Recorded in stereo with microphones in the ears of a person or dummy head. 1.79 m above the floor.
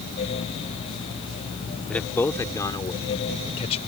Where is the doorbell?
I don't hear a doorbell.